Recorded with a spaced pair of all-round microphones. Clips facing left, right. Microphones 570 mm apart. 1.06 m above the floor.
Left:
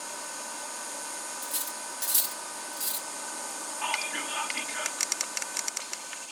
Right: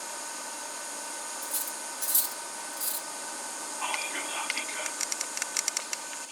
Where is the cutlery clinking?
80° left, 0.7 m.